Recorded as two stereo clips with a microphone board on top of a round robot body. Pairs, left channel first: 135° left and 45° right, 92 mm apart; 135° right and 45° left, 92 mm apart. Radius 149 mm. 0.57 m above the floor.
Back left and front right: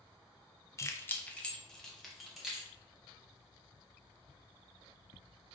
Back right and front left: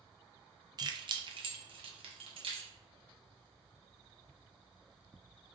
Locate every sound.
0.8 s keys jangling: 85° left, 0.6 m; by 2.7 s 40° left, 1.3 m